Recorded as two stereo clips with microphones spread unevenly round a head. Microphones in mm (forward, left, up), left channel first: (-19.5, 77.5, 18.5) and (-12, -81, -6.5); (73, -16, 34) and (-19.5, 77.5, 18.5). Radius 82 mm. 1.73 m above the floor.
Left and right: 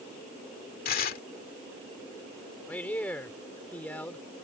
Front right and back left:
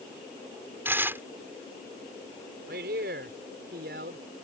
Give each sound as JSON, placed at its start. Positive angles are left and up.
{"t": 0.8, "sound": "tearing paper", "azimuth_deg": 60}
{"t": 2.7, "sound": "a man speaking", "azimuth_deg": 170}